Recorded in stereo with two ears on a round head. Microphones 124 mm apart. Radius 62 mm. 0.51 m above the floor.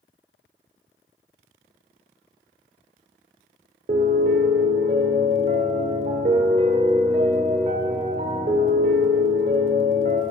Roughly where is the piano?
Right.